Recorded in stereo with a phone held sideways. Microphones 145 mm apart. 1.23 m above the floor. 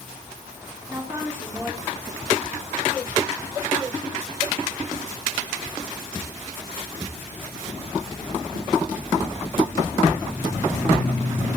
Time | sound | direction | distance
0.9 | a woman speaking | 20° right (ahead or behind) | 3.5 m